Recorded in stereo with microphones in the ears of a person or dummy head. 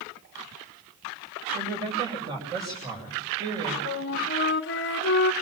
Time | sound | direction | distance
1.5 | a woman speaking | 25° right (ahead or behind) | 8.5 m
3.9 | a flute | 55° left (ahead or behind) | 1.3 m